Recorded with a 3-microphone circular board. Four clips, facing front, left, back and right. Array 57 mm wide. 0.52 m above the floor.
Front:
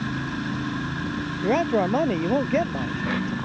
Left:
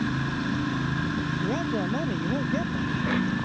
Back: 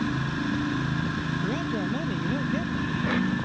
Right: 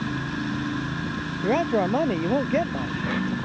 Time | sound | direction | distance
1.4 | a man speaking | 40° right | ?